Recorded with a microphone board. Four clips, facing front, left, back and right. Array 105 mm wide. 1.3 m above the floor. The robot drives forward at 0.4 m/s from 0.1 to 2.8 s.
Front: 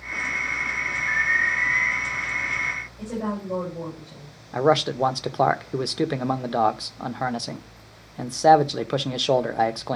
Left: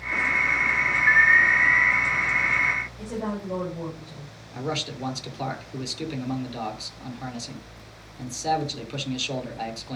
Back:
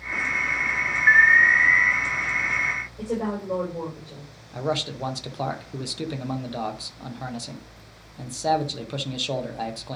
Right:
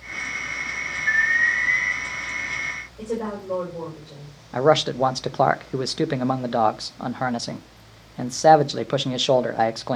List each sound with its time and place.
1.1 s an alarm: 165° left, 0.8 m; by 1.9 s 170° left, 1.1 m
3.0 s a woman speaking: 140° right, 6.5 m
4.5 s a man speaking: 55° right, 0.5 m